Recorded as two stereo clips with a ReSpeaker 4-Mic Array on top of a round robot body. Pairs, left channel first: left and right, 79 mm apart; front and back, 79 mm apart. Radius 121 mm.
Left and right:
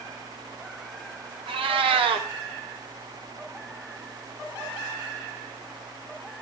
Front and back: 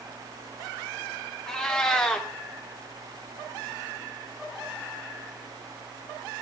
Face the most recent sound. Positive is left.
turn(degrees=-85)